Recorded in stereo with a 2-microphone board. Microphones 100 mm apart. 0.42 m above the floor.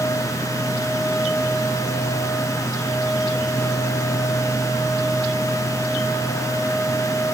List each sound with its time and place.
Only background noise.